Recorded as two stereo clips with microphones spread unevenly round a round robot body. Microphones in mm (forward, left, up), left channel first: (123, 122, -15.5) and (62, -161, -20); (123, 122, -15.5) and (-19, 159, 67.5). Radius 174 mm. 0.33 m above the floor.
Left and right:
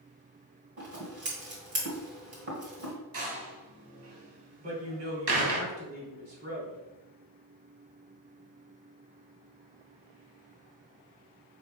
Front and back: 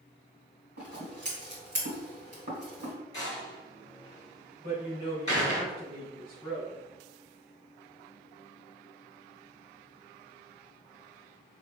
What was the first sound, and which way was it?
Scissors, 130° right.